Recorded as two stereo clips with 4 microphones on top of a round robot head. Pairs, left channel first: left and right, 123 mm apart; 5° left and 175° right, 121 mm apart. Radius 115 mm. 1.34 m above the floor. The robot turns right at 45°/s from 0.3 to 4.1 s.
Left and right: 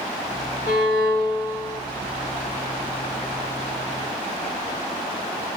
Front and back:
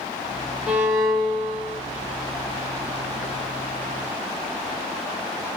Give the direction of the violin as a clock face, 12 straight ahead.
8 o'clock.